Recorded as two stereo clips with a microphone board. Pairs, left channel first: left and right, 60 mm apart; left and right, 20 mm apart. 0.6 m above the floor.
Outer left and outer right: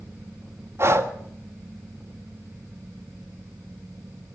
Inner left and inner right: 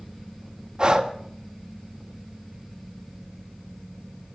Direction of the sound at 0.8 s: 45° right (ahead or behind).